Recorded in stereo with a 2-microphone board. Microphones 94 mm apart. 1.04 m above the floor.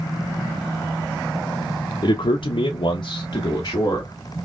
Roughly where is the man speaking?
Left.